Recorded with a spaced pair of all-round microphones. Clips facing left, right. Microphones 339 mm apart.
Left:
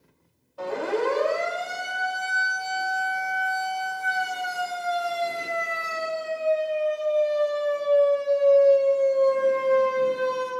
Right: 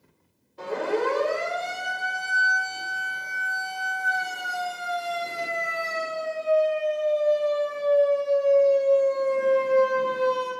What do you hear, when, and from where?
0.6 s a siren: 30° right (ahead or behind), 7.5 m; by 10.5 s 75° right (ahead or behind), 6.5 m